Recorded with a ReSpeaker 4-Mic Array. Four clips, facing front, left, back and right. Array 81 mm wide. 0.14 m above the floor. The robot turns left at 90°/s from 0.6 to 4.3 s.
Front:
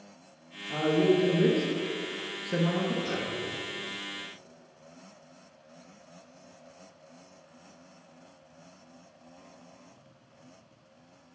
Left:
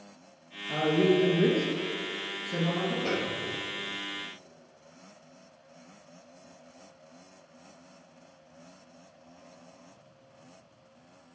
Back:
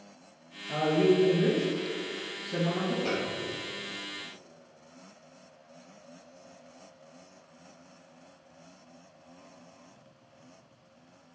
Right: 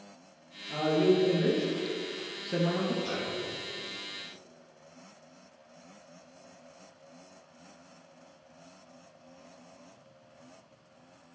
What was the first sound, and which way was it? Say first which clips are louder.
A man speaking: left 1 dB, even; 135° left.